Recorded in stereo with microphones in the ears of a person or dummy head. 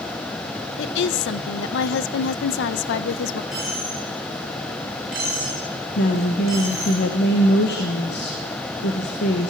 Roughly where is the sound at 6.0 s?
Left.